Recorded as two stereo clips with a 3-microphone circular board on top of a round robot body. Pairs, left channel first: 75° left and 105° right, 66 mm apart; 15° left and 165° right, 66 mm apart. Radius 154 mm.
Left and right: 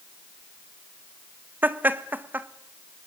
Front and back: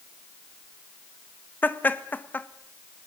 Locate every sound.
1.6 s laughter: 45° right, 1.5 m